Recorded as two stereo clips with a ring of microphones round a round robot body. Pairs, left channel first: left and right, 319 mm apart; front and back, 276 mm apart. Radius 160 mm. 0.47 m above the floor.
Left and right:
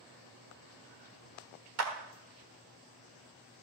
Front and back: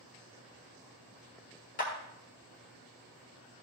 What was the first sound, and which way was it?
A clap, 60° right.